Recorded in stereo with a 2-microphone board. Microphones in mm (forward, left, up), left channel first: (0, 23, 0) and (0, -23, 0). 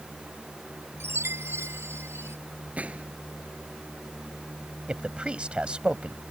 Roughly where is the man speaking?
Right.